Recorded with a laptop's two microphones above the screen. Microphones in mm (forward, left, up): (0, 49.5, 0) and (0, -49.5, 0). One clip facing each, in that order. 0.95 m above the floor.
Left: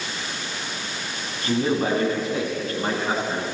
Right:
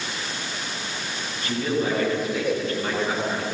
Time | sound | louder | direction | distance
1.4 | a man speaking | left 3 dB | 40° left (ahead or behind) | 10 m